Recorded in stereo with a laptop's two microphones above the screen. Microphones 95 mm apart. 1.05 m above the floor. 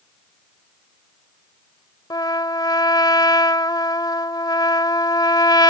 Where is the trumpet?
50° left (ahead or behind).